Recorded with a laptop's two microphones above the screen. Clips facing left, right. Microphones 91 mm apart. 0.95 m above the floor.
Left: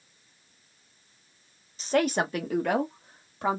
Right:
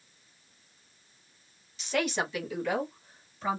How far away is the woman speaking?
About 0.9 m.